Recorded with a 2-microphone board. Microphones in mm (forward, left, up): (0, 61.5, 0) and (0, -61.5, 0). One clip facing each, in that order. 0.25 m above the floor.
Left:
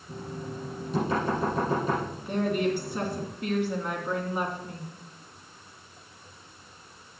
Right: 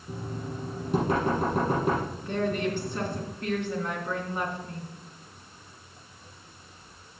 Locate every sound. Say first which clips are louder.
0.1 s knocking: right 1 dB; 70° right (ahead or behind), 5.5 m
2.2 s a woman speaking: left 3 dB; 10° left (ahead or behind), 3 m